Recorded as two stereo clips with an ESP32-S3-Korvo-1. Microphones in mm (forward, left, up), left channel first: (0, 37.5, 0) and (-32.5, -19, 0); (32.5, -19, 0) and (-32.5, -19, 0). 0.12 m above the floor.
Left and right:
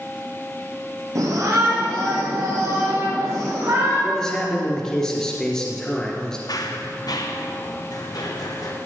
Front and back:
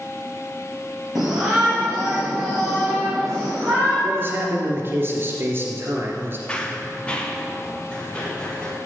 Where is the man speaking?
135° left, 2.5 m.